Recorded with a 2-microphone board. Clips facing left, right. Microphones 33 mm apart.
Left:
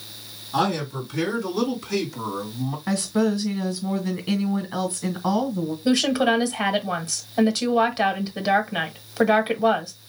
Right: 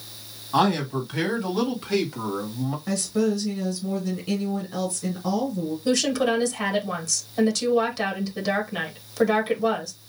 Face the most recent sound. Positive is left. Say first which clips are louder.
# left 3 dB
turn(degrees=25)  # may be behind; listen again after turning